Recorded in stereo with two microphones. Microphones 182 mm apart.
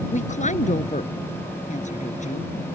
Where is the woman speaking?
40° left (ahead or behind).